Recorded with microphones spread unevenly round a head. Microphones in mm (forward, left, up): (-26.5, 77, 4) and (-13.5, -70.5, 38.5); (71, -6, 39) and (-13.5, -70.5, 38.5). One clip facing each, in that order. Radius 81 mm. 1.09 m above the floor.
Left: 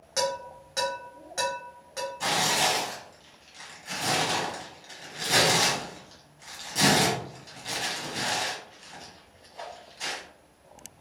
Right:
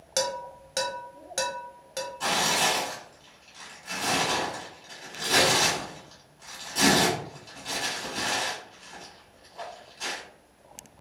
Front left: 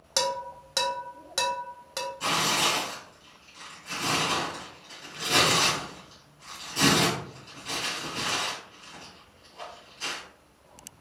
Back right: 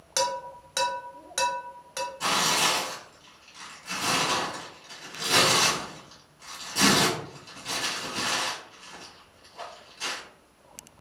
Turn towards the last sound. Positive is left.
turn(degrees=180)